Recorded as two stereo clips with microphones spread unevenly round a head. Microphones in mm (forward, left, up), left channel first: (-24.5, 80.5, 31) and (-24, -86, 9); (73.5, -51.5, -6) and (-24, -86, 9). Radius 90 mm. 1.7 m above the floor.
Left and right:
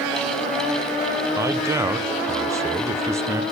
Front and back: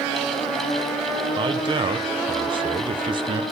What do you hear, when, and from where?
1.4 s a man speaking: 165° right, 0.8 m